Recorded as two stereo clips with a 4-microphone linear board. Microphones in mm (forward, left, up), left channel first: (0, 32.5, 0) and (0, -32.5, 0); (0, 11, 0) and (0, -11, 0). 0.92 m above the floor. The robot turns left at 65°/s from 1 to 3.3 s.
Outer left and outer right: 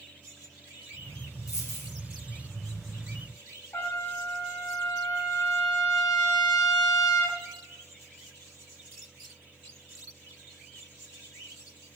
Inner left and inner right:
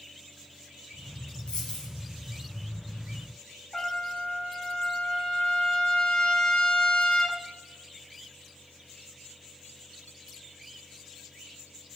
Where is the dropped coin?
55° left (ahead or behind), 1.2 m; by 1.9 s 40° left (ahead or behind), 1.2 m.